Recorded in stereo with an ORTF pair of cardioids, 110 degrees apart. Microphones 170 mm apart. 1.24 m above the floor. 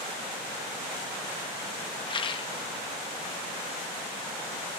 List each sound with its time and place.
2.1 s a rattle: 30° left, 1.1 m